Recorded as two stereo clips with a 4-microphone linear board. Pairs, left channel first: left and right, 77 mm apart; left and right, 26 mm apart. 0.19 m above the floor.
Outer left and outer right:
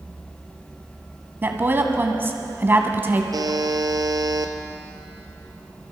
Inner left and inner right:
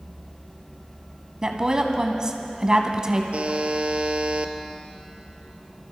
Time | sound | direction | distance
1.4 | a woman speaking | 30° right (ahead or behind) | 1.3 m
3.3 | a buzzer | 55° right (ahead or behind) | 1.0 m